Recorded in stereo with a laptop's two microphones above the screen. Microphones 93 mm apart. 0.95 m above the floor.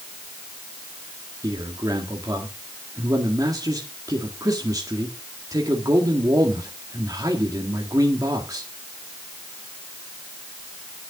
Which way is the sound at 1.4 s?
40° right (ahead or behind).